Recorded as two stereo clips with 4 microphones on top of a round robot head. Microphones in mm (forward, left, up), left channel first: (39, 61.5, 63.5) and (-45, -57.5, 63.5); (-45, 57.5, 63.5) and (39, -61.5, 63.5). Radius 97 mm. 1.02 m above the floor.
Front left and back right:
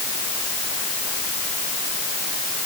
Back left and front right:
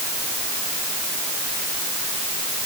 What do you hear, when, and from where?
Only background noise.